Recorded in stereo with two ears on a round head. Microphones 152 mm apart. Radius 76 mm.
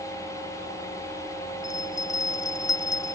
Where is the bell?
20° left (ahead or behind).